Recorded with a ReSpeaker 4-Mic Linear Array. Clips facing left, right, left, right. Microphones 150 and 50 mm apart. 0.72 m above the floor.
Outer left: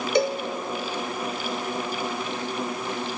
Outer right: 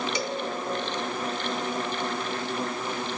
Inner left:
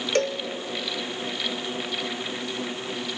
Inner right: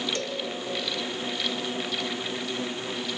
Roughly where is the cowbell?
Left.